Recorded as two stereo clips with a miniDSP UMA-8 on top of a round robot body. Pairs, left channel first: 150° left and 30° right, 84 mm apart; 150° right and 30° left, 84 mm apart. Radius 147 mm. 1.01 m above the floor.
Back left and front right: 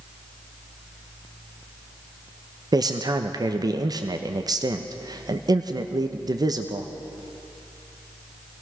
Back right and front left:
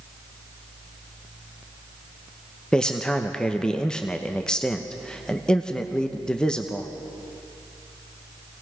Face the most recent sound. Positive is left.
turn(degrees=-70)